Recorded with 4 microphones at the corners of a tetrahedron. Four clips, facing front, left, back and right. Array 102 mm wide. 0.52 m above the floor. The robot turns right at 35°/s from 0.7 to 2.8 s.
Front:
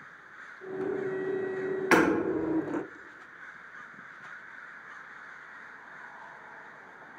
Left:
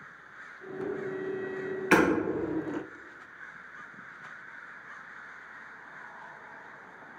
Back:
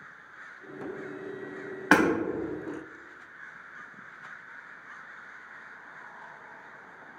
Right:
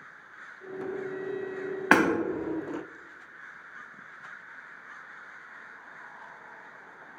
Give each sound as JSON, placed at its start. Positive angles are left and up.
{"t": 1.9, "sound": "hammering", "azimuth_deg": -120, "distance_m": 1.7}